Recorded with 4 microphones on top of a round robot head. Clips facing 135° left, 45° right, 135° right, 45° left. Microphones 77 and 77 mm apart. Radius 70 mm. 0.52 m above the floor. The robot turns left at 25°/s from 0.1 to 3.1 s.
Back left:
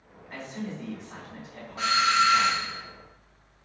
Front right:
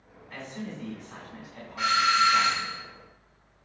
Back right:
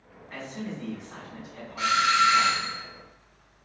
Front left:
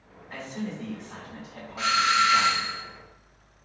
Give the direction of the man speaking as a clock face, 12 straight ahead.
9 o'clock.